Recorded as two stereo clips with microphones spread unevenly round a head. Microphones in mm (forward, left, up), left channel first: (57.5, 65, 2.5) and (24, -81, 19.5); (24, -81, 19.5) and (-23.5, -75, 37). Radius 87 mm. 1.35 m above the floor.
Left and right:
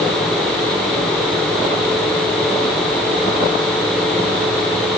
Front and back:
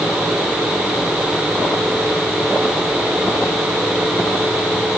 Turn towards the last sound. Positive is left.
No sound to turn to.